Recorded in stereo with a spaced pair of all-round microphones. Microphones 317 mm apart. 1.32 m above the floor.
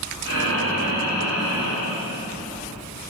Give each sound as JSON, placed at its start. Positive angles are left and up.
{"t": 0.2, "sound": "breathing", "side_deg": -50, "distance_m": 4.0}